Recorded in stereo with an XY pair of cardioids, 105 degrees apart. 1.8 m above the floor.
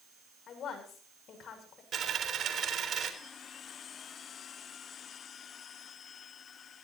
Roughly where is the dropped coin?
Ahead right.